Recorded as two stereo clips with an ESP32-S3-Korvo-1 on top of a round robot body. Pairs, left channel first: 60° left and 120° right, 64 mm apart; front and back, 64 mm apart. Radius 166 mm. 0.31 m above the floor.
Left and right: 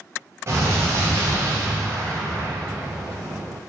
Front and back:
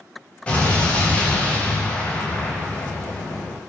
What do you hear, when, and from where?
0.5 s an explosion: 70° right, 0.7 m